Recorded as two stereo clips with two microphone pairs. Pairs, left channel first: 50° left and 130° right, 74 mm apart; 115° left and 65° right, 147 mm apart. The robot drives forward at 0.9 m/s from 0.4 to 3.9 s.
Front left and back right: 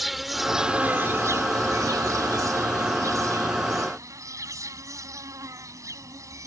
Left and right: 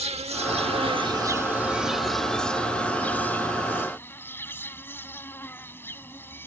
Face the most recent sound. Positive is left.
turn(degrees=-170)